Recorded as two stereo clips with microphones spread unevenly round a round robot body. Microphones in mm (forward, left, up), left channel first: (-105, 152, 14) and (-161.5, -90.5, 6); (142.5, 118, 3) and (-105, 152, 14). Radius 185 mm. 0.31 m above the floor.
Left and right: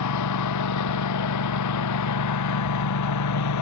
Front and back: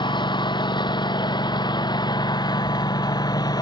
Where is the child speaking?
No child speaking in this recording.